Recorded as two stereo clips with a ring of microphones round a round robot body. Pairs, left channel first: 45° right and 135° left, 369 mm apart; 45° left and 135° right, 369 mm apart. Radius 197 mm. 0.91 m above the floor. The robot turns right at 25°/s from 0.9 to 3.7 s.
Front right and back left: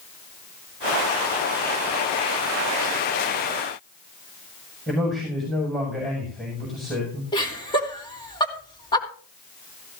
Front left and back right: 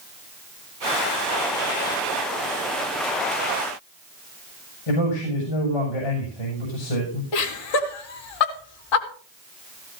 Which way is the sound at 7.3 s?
35° left.